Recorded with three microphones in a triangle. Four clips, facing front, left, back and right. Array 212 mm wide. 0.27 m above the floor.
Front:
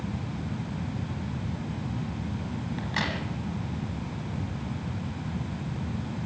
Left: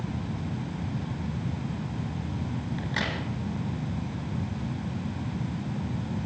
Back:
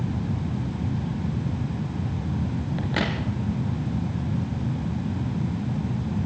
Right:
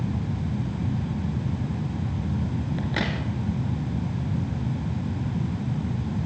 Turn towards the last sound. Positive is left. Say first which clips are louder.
# right 4 dB, back 5 dB
turn(degrees=-150)